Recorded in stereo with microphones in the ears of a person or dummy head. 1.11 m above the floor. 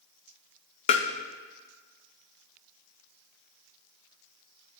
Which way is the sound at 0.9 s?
40° left (ahead or behind).